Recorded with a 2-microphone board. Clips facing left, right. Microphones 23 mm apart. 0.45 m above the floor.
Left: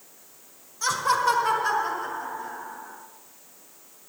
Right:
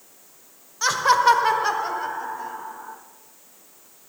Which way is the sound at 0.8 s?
30° right (ahead or behind).